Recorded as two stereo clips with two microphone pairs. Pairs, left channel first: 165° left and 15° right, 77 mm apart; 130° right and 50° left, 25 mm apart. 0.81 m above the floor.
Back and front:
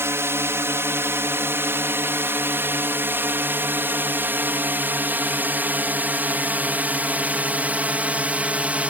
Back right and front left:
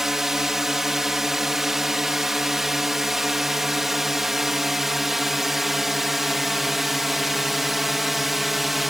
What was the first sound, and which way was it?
A drone, 10° right.